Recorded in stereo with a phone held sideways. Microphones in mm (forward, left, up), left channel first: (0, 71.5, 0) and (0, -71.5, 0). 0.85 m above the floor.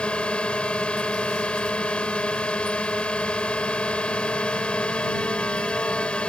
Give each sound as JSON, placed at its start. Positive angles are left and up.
{"t": 0.0, "sound": "a drone", "side_deg": 10}